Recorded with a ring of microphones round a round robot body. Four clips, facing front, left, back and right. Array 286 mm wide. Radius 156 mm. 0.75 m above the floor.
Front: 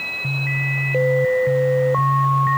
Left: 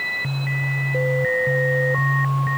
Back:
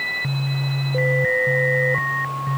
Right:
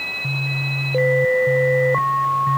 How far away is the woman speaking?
No woman speaking in this recording.